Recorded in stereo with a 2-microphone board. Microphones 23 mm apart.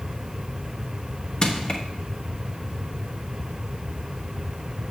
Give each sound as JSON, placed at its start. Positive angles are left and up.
{"t": 1.4, "sound": "crushing", "side_deg": 40, "distance_m": 1.0}